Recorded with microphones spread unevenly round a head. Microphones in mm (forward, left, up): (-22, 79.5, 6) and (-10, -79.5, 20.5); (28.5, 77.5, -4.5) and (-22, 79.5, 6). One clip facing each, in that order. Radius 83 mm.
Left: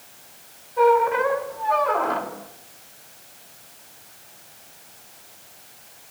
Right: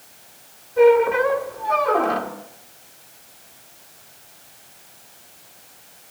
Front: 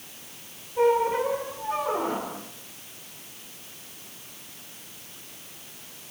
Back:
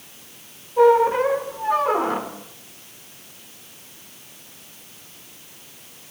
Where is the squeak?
120° right, 3 m.